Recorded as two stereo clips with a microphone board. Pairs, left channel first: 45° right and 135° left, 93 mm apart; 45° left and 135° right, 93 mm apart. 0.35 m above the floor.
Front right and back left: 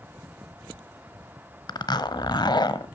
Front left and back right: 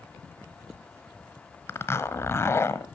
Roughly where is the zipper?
Ahead.